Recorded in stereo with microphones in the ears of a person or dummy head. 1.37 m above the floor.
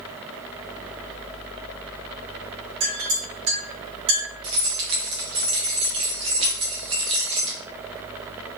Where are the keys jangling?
30° right (ahead or behind), 0.7 m.